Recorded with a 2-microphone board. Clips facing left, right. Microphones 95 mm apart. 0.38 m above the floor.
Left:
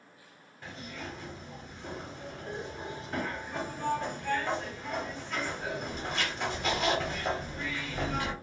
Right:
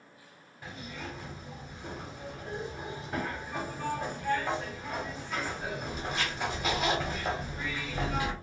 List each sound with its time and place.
0.6 s a zipper: 5° right (ahead or behind), 1.1 m